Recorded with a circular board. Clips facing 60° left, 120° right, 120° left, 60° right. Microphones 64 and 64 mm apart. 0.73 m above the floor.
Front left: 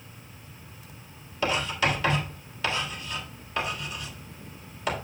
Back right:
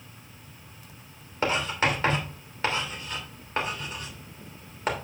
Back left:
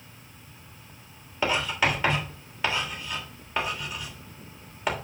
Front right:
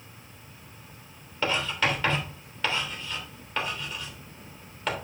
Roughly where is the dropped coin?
I don't hear a dropped coin.